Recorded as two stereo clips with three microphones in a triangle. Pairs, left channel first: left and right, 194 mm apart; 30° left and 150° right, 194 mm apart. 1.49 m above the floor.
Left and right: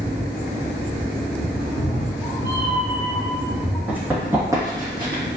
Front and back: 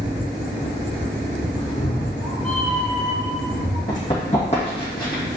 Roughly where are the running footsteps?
Ahead.